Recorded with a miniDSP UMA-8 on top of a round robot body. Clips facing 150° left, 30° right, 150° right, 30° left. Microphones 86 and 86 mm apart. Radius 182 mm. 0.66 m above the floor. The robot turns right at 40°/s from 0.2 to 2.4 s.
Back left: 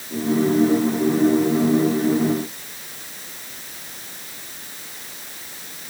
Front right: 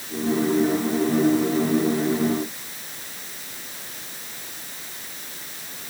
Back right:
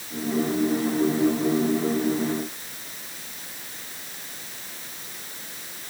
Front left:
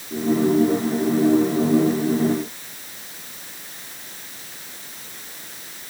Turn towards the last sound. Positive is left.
No sound to turn to.